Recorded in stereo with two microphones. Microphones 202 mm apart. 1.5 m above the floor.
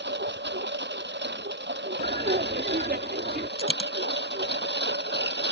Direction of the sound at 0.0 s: 60° right (ahead or behind).